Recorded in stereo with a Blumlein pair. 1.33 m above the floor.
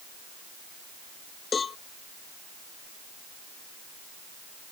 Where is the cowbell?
20° left.